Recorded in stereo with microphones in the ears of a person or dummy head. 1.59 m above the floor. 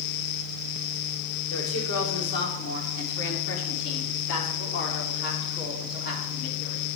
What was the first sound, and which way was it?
A woman speaking, 85° left.